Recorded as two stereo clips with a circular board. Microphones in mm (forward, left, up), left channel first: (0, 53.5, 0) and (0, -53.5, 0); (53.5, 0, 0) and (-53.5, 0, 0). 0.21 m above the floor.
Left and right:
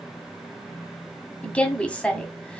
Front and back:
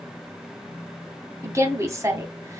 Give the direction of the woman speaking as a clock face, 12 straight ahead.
7 o'clock.